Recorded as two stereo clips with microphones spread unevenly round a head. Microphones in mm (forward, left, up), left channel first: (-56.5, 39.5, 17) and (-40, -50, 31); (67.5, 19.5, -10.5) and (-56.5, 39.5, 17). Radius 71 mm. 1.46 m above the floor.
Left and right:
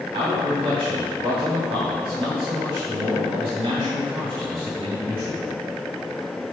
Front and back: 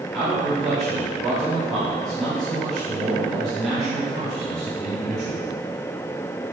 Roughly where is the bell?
No bell in this recording.